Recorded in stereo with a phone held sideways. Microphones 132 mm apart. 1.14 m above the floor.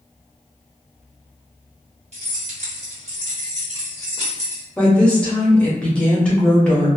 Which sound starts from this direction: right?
Keys jangling, at 2.1 s.